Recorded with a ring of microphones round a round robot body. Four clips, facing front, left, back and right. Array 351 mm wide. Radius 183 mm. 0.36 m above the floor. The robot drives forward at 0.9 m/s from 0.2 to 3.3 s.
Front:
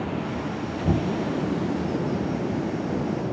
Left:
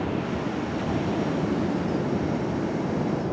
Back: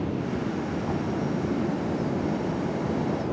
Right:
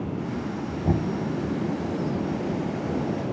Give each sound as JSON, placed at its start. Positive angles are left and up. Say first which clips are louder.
{"t": 0.8, "sound": "knocking", "louder": "right 4 dB, front 4 dB", "azimuth_deg": -45}